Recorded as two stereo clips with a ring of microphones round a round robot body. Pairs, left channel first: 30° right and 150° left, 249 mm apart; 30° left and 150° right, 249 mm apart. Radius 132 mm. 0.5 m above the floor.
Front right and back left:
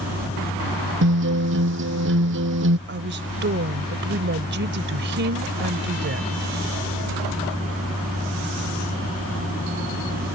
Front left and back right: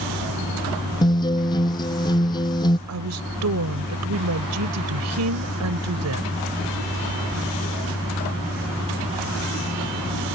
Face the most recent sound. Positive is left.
turn(degrees=-165)